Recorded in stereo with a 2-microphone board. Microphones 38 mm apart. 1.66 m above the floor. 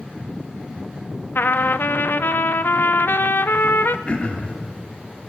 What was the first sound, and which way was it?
A trumpet, 65° left (ahead or behind).